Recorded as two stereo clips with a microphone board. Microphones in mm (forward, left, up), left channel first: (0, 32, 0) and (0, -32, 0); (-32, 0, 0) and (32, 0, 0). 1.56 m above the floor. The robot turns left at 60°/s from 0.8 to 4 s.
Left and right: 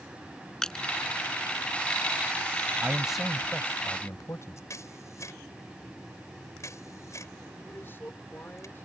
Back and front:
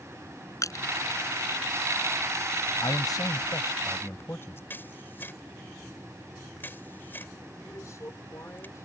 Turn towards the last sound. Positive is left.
turn(degrees=145)